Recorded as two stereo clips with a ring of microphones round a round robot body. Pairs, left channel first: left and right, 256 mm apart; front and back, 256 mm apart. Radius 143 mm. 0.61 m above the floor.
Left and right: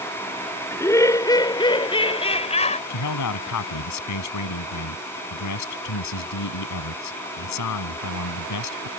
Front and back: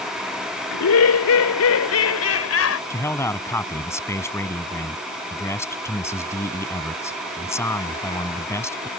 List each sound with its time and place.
0.7 s laughter: 10° left; by 2.8 s 25° left
2.9 s a man speaking: 80° left